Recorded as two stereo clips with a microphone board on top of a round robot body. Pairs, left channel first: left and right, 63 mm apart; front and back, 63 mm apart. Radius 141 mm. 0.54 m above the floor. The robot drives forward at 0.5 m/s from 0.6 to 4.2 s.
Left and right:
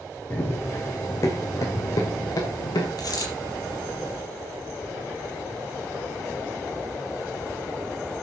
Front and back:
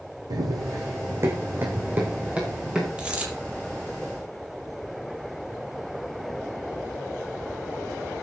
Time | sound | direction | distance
0.3 | running footsteps | 150° left | 2.5 m
3.0 | a dropped coin | 105° left | 5.5 m